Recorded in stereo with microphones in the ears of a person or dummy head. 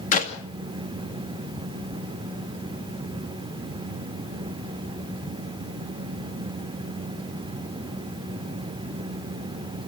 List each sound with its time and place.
0.1 s a clap: 30° left (ahead or behind), 2 m